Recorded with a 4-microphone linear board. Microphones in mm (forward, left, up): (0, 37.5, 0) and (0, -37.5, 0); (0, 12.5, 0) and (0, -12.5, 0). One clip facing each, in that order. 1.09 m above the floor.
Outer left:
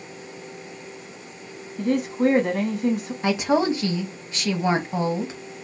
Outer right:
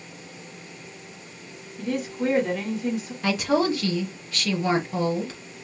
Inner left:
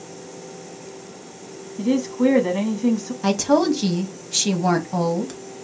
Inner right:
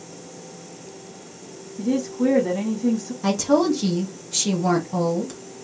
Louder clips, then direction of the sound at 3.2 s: Outer left 2 dB, inner left 1 dB; 20° left (ahead or behind).